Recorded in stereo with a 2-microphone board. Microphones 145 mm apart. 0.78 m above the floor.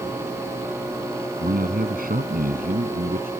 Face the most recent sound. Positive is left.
turn(degrees=-85)